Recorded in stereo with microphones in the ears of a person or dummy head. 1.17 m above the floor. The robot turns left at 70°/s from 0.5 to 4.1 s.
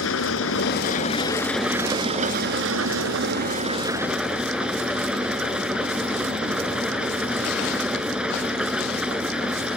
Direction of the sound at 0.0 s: 75° left.